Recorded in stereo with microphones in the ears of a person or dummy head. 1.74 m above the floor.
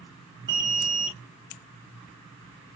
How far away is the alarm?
About 0.8 m.